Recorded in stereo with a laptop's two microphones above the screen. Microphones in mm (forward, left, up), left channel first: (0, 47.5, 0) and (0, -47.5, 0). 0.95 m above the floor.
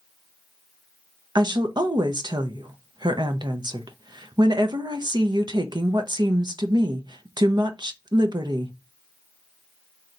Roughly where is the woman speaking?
Right.